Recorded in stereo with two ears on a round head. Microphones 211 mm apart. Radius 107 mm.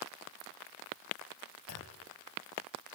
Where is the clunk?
75° left (ahead or behind), 3 m.